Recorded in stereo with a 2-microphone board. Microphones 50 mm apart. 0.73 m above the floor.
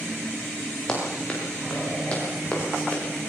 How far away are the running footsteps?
About 6.5 m.